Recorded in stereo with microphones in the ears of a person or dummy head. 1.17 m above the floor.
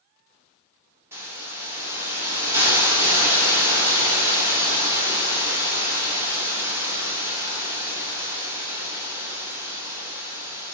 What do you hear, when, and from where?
1.1 s a hiss: 10° right (ahead or behind), 0.5 m